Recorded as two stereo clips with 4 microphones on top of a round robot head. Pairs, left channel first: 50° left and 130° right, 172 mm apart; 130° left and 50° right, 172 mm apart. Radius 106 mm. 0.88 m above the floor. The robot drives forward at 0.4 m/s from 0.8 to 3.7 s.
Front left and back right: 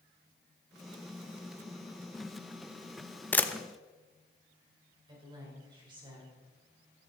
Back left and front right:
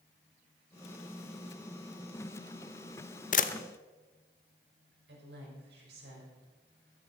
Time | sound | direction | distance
3.3 | a camera shutter | 130° left | 0.9 m
5.1 | a woman speaking | 65° right | 5 m